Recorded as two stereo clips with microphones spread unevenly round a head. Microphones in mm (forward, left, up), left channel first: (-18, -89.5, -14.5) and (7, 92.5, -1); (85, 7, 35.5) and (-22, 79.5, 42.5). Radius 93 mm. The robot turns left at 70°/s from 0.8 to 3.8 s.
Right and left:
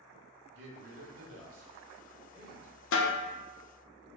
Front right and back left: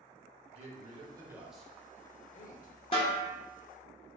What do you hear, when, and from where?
0.5 s a man speaking: 110° left, 1.0 m; by 2.8 s 25° right, 1.0 m
2.9 s a snare drum: 95° right, 0.5 m; by 3.2 s 115° right, 0.5 m